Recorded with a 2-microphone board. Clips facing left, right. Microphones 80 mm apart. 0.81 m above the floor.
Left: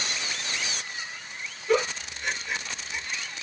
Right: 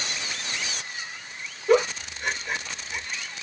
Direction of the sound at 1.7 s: 50° right (ahead or behind).